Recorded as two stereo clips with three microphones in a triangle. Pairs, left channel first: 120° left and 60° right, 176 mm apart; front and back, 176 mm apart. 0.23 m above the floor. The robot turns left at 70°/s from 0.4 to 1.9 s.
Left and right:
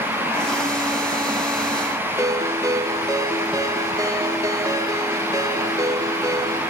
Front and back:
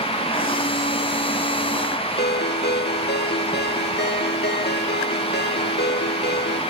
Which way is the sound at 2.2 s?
10° left.